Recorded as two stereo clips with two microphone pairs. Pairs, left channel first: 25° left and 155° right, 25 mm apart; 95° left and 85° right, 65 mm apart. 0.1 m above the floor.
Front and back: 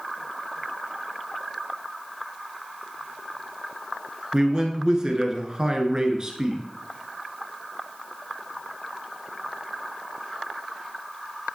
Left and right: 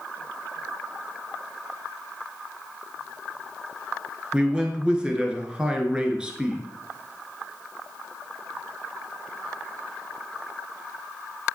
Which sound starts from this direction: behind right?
A man speaking, at 4.3 s.